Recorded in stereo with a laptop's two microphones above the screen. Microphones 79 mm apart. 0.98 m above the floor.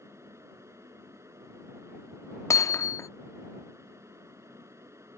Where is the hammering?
40° left (ahead or behind).